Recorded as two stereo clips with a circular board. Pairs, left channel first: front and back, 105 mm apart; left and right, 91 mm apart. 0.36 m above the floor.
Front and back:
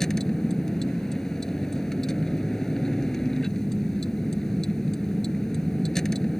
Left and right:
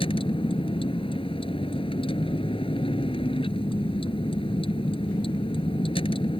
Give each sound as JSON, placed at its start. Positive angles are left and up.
{"t": 0.0, "sound": "a vehicle", "azimuth_deg": 85}